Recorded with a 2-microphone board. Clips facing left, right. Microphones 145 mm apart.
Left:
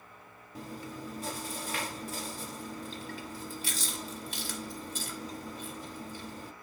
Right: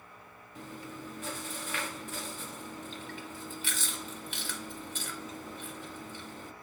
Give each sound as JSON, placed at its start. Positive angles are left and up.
{"t": 0.6, "sound": "chewing", "side_deg": 40, "distance_m": 0.6}